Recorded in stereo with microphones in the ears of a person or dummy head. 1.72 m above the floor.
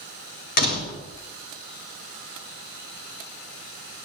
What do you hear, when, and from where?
0.6 s a door slam: 40° left (ahead or behind), 1.5 m